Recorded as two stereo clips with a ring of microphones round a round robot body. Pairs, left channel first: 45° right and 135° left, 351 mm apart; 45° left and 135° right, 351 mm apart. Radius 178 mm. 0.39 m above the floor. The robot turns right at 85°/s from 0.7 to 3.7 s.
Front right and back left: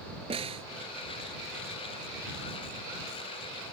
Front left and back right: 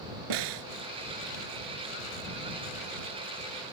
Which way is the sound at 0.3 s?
150° right.